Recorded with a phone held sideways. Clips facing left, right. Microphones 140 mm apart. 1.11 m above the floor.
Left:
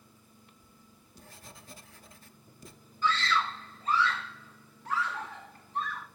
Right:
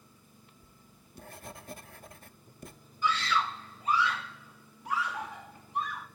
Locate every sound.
0.6 s writing: 55° right (ahead or behind), 0.8 m
3.0 s a scream: 10° right (ahead or behind), 2.5 m